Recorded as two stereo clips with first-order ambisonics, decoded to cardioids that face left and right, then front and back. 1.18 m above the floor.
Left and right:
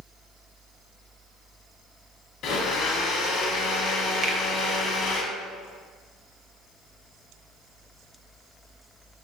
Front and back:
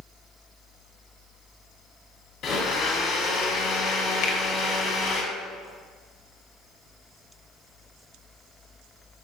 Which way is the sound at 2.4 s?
50° left.